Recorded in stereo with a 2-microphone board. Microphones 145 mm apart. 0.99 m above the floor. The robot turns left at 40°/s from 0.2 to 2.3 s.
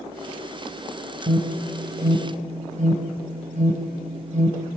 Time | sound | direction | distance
1.3 | an alarm | 85° right | 4.5 m